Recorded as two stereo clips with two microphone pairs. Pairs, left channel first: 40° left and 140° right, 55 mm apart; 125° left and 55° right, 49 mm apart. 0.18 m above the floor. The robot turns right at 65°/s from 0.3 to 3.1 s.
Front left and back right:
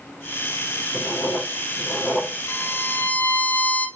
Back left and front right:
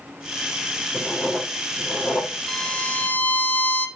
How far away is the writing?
About 4 m.